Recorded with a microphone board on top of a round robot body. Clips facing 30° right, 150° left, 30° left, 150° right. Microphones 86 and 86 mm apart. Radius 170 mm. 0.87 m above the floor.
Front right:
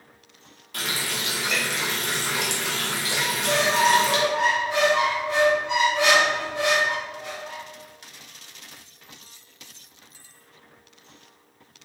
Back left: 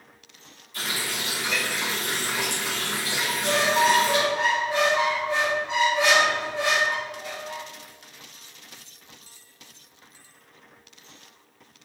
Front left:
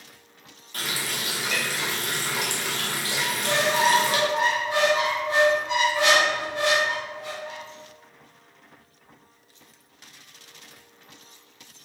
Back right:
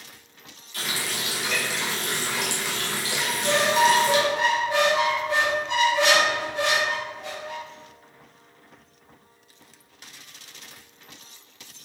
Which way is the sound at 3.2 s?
10° right.